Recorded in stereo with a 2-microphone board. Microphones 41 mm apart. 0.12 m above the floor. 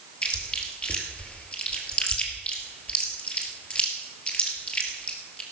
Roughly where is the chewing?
Left.